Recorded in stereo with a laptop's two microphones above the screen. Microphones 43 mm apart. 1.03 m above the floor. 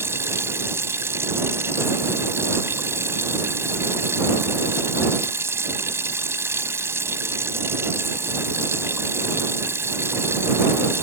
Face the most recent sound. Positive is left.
turn(degrees=-80)